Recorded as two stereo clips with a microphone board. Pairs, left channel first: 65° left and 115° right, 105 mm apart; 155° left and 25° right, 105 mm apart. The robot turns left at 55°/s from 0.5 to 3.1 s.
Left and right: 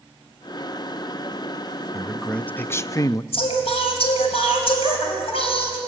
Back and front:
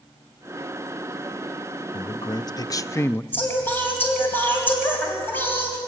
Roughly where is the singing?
Left.